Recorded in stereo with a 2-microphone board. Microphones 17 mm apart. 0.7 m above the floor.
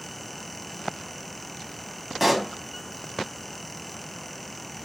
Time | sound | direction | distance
2.2 | a pop | centre (ahead or behind) | 1.4 m